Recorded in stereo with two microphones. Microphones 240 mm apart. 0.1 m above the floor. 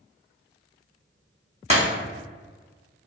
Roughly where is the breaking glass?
Right.